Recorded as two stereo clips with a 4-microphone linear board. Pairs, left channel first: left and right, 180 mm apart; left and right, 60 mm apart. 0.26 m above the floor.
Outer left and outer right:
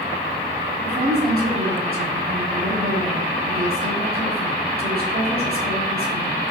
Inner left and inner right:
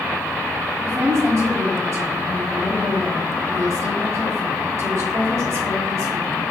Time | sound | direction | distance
0.8 | a woman speaking | 55° right (ahead or behind) | 2.5 m